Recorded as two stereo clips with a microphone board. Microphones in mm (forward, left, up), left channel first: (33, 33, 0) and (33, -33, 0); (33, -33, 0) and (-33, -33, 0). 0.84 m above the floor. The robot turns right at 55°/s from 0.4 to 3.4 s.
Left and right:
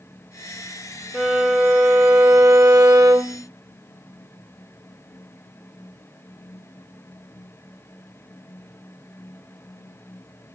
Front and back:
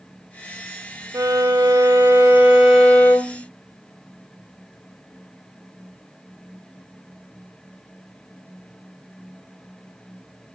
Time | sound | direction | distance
1.1 | a violin | straight behind | 2 m